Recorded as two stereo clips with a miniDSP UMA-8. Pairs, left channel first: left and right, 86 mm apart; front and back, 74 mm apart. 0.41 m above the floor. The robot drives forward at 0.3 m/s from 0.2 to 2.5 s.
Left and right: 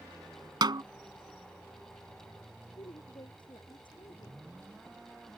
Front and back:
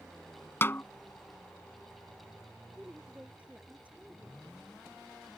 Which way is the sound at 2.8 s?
110° left.